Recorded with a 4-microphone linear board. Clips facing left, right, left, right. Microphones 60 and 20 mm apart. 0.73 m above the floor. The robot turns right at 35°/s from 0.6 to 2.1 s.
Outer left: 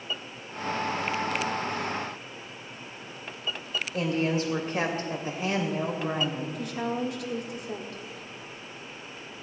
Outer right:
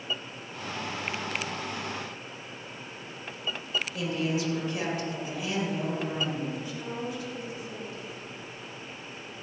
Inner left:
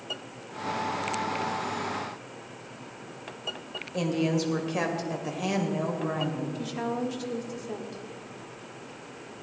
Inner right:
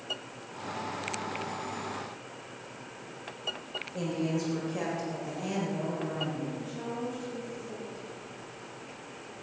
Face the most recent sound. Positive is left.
turn(degrees=70)  # may be behind; listen again after turning